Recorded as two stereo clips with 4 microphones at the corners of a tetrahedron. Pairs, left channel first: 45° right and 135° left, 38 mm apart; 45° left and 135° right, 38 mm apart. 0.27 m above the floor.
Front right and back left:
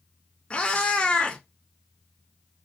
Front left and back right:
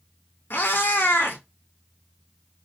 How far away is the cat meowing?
About 0.6 m.